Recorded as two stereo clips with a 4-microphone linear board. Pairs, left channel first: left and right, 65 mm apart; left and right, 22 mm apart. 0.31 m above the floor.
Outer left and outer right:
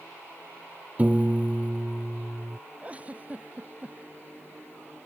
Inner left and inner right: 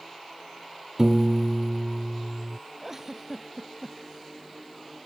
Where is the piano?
25° right (ahead or behind).